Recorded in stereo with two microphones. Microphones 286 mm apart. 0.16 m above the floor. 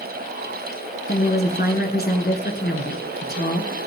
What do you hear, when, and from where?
1.1 s a woman speaking: 35° left (ahead or behind), 2 m